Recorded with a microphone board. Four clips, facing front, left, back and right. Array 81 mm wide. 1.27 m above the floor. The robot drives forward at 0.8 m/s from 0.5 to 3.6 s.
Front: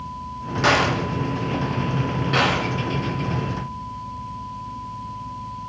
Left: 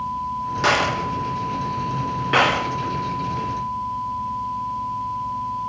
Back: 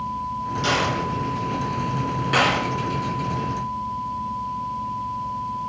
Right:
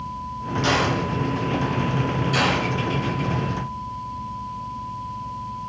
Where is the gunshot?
45° left, 1.7 m; by 2.7 s 115° left, 1.3 m.